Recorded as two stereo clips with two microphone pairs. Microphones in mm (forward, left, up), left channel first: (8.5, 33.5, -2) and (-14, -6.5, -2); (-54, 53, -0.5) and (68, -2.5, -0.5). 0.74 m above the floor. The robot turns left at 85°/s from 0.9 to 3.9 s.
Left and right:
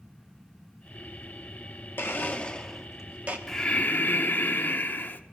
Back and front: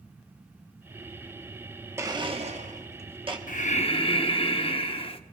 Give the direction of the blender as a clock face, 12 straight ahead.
11 o'clock.